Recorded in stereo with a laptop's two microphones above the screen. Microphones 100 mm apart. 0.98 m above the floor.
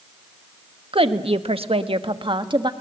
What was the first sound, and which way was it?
A woman speaking, 65° right (ahead or behind).